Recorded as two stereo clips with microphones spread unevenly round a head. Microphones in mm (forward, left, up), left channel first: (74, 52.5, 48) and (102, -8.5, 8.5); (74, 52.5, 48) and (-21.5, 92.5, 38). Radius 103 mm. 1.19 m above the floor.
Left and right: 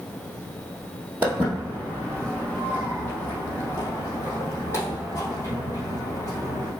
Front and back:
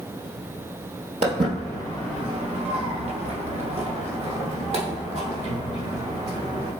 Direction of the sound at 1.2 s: 165° right.